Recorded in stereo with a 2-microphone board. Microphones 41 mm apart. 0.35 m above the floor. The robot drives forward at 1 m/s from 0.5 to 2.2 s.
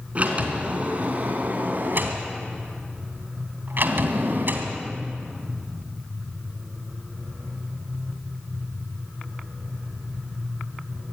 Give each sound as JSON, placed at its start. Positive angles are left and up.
{"t": 0.1, "sound": "a sliding door", "side_deg": -35, "distance_m": 3.5}